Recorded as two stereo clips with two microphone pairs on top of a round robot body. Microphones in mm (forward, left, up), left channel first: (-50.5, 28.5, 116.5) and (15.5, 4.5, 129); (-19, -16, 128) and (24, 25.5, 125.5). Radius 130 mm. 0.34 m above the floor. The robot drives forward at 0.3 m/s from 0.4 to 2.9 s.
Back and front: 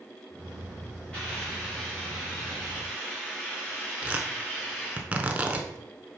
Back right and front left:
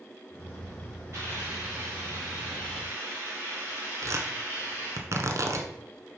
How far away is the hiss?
About 3.5 m.